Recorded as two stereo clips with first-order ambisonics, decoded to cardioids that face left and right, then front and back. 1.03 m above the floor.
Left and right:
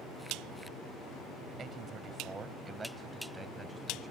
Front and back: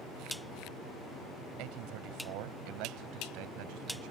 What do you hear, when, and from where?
1.6 s a man speaking: 150° right; by 4.1 s 175° right